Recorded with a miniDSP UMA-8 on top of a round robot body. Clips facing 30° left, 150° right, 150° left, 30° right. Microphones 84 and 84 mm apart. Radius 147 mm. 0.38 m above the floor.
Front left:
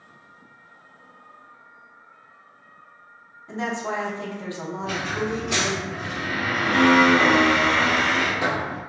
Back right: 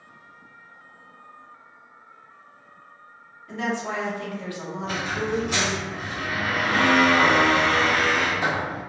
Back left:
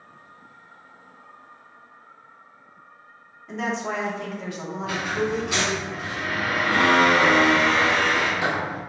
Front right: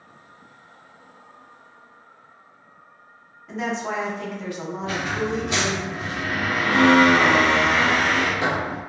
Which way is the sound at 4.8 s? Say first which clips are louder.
Front left 1 dB, back left 1 dB; 30° left.